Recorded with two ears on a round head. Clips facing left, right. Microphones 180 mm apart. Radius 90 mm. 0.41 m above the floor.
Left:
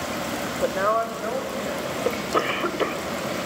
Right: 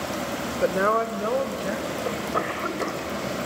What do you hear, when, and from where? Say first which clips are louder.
0.6 s a woman speaking: right 1 dB; 25° right (ahead or behind), 1.0 m; by 1.9 s 70° right (ahead or behind), 2.5 m
2.0 s a cough: left 6 dB; 45° left (ahead or behind), 1.8 m